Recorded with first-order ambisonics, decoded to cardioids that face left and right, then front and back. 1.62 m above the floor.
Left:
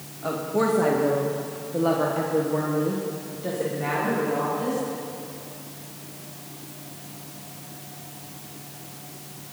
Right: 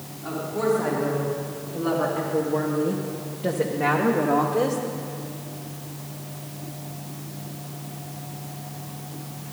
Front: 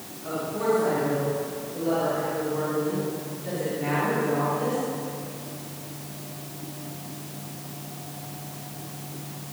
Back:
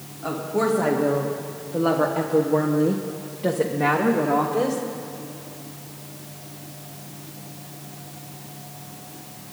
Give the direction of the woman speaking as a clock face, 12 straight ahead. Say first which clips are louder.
Left 1 dB, back 3 dB; 8 o'clock.